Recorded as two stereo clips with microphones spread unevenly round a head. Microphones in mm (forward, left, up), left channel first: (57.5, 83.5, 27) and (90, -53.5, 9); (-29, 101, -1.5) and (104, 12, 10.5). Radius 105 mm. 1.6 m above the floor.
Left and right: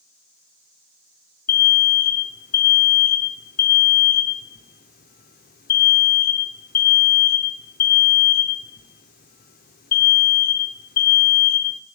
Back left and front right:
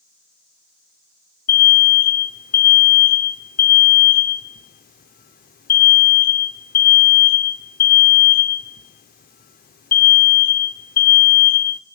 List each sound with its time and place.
1.5 s an alarm: 115° left, 0.6 m